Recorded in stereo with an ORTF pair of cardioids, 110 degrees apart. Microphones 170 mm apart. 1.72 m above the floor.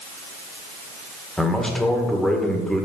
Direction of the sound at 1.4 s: Straight ahead.